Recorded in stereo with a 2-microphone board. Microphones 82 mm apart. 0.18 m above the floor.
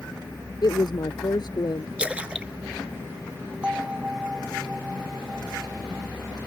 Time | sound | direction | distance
0.6 | a woman speaking | 55° left (ahead or behind) | ?
2.0 | a splash | 15° right (ahead or behind) | ?
3.6 | a bell | 10° right (ahead or behind) | ?